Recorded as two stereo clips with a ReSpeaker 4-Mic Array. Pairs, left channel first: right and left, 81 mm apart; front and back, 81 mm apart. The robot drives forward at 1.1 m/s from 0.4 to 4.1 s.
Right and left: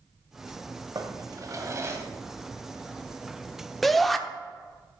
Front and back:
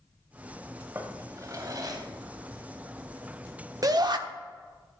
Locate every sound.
0.9 s a drawer: 120° left, 1.6 m; by 2.0 s 145° left, 2.5 m
3.8 s a shout: straight behind, 0.8 m